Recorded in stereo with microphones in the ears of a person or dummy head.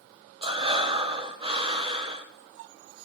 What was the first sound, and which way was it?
Breathing, 30° right (ahead or behind).